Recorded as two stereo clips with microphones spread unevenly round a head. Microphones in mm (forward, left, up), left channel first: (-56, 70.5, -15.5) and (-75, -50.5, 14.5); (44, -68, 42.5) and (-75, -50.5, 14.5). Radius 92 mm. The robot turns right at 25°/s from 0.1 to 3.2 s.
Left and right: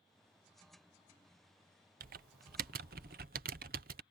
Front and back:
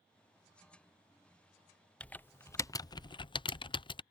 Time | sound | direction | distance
2.0 | typing on a keyboard | 95° right | ?